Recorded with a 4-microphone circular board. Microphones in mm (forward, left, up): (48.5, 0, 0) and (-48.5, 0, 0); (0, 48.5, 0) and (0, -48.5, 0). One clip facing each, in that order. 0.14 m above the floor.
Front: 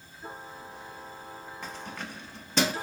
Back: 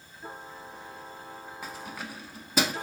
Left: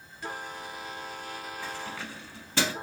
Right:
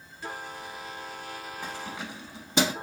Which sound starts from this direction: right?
Keys jangling, at 1.6 s.